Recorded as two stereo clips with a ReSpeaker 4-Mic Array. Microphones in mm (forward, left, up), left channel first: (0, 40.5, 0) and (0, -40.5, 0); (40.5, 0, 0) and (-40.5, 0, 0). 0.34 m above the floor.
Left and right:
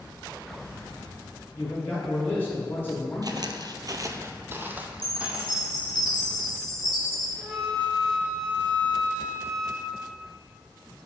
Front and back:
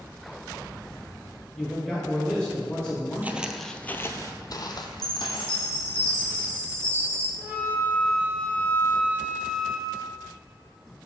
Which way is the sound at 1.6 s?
70° left.